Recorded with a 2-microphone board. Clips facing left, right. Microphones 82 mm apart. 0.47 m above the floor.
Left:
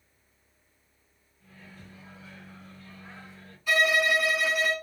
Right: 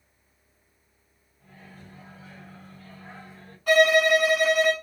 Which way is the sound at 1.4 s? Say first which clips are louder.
Right 2 dB; 40° right (ahead or behind).